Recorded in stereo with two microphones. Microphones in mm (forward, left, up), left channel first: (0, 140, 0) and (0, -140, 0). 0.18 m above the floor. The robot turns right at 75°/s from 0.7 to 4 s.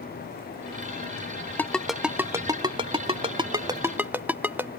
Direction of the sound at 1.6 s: 5° left (ahead or behind).